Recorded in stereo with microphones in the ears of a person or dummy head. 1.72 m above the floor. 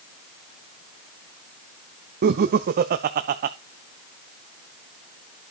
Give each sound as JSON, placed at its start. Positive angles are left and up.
{"t": 2.2, "sound": "laughter", "side_deg": -45, "distance_m": 0.5}